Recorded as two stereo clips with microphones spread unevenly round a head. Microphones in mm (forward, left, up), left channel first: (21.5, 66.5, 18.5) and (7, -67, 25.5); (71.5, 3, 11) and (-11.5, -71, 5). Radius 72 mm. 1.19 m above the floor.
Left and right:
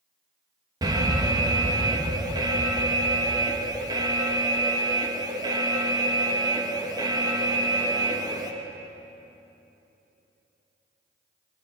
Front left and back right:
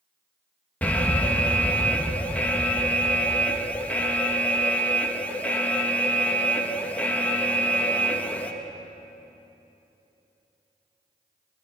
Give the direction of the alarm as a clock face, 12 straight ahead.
1 o'clock.